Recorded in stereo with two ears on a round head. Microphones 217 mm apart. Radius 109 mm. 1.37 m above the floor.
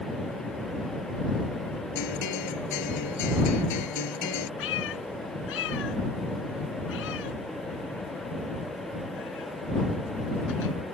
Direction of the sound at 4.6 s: 60° left (ahead or behind).